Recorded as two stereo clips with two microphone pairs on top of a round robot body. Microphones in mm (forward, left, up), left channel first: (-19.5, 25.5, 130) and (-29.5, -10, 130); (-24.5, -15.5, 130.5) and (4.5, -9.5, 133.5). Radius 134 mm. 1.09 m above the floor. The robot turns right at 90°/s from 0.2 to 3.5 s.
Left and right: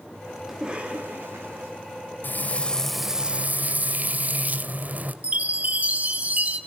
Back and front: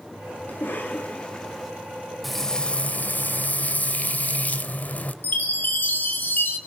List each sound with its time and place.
0.5 s a cough: 175° left, 2.5 m; by 1.7 s 75° right, 2.5 m
2.2 s frying: 100° left, 1.8 m; by 5.1 s 145° right, 1.8 m
5.2 s a chime: 150° right, 1.9 m